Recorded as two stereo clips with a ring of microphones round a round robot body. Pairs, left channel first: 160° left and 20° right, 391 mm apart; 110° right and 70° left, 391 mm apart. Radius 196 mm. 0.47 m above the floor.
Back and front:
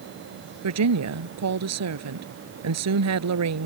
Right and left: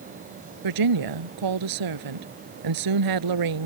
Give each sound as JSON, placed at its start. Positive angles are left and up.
{"t": 0.6, "sound": "a woman speaking", "azimuth_deg": 30}